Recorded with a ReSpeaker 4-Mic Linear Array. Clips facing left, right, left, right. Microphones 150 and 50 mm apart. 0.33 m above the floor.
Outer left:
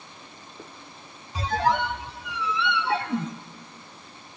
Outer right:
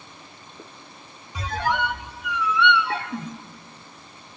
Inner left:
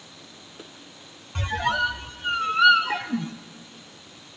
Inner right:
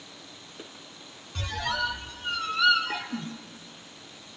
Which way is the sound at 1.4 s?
30° left (ahead or behind).